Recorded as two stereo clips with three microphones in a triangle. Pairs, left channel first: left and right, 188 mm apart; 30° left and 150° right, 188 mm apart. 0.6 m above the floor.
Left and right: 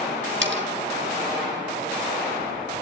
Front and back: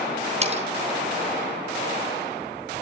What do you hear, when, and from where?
0.4 s cutlery clinking: 95° right, 3 m